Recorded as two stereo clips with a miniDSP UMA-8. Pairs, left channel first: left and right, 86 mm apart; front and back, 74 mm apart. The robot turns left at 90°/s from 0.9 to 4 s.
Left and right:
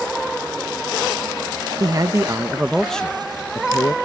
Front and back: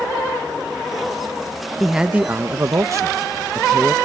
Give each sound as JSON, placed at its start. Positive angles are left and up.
{"t": 1.8, "sound": "a man speaking", "azimuth_deg": -85}